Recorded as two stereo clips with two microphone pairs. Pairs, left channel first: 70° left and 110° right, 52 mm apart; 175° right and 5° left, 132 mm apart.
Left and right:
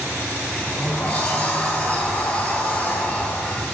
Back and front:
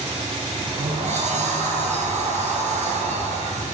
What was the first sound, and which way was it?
A sliding door, 10° left.